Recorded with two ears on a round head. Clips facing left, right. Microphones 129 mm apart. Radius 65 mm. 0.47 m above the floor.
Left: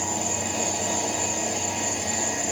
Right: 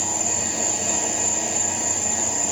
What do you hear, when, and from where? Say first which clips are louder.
0.0 s an insect: left 1 dB; 35° right (ahead or behind), 3 m